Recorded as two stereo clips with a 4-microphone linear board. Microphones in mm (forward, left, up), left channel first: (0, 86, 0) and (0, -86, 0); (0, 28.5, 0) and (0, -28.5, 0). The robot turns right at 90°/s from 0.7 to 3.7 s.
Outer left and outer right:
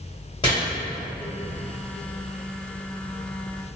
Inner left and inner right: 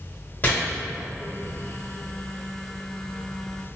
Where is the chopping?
30° left (ahead or behind), 1.4 m.